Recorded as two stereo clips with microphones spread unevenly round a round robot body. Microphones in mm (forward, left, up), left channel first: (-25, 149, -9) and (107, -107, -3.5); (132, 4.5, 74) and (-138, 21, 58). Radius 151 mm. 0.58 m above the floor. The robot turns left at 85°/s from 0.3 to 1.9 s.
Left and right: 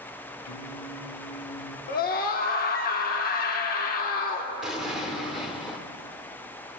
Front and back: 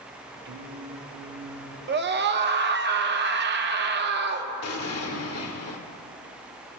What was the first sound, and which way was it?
Singing, 125° left.